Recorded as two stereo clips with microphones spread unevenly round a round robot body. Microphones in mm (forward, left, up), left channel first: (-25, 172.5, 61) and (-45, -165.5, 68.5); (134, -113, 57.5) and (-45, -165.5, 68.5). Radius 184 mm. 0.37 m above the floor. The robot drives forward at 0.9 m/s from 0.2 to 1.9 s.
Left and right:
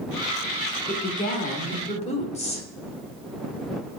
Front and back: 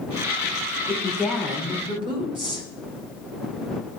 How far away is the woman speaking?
About 1.3 m.